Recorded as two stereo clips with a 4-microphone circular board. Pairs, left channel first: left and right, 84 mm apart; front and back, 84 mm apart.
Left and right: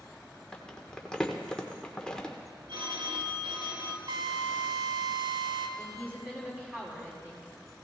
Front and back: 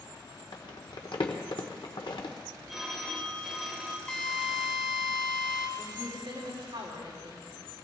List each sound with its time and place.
0.5 s crumpling: 10° left, 1.3 m
2.7 s a phone ringing: 90° right, 1.5 m
4.1 s a drill: 80° right, 1.9 m
5.8 s a woman speaking: 165° right, 5.5 m